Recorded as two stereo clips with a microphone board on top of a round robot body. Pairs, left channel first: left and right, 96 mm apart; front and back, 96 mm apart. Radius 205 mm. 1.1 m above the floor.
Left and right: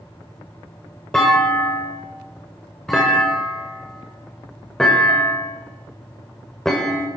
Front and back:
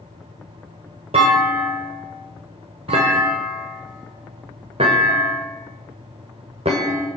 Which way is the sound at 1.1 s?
175° left.